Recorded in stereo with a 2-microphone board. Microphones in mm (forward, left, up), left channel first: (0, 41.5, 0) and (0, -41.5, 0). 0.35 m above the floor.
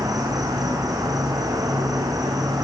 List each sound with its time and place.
0.0 s an insect: 45° right (ahead or behind), 1.8 m